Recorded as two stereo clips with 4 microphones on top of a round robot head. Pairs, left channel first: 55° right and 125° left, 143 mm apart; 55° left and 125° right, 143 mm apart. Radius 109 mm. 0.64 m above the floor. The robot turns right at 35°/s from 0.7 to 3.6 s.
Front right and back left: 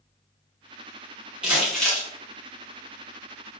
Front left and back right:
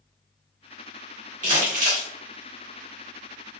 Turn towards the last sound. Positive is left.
turn(degrees=-75)